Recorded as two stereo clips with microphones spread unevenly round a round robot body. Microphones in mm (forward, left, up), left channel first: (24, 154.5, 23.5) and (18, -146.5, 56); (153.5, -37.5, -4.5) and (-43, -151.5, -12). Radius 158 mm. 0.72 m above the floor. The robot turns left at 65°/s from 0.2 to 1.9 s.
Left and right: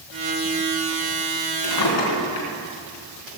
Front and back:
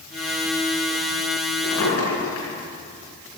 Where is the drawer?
85° left, 4 m; by 2.5 s 70° left, 4 m.